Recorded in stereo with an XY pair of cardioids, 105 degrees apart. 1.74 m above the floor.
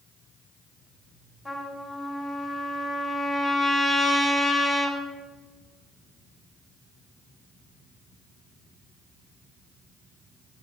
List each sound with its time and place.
1.4 s a trumpet: straight ahead, 2.5 m